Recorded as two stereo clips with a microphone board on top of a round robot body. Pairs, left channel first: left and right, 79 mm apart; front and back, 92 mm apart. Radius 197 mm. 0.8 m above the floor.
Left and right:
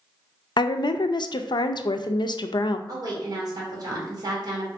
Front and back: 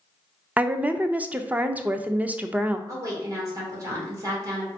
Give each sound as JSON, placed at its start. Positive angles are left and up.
{"t": 0.6, "sound": "a woman speaking", "azimuth_deg": 105, "distance_m": 0.5}
{"t": 2.9, "sound": "a woman speaking", "azimuth_deg": -125, "distance_m": 2.0}